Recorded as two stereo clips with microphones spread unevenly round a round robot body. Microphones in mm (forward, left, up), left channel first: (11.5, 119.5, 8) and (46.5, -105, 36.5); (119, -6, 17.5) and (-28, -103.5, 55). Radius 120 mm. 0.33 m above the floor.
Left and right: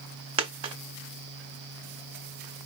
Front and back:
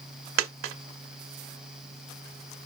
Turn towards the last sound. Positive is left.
turn(degrees=-150)